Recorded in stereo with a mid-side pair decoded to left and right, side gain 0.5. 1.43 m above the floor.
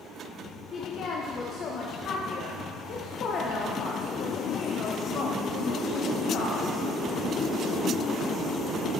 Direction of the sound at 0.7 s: 50° left.